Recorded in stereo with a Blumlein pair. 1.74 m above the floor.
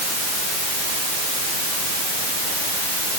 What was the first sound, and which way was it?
Only background noise.